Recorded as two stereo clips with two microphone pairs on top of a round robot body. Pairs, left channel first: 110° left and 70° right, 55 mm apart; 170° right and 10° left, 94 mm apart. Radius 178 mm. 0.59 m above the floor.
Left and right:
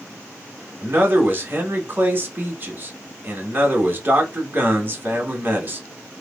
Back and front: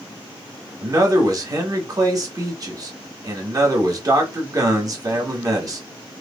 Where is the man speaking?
30° right, 1.7 m.